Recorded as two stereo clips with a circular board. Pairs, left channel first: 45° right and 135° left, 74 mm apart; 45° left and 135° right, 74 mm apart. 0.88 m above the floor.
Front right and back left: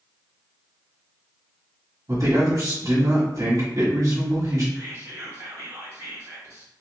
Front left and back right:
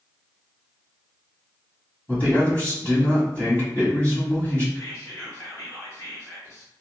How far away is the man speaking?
About 1.6 m.